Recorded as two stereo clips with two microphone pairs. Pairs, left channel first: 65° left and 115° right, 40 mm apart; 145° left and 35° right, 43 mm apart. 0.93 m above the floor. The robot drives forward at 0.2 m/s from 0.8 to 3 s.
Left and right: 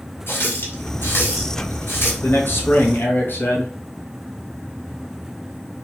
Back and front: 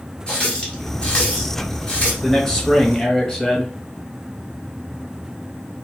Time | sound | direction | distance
0.3 | a running tap | 80° left | 1.5 m
2.2 | a man speaking | 70° left | 1.3 m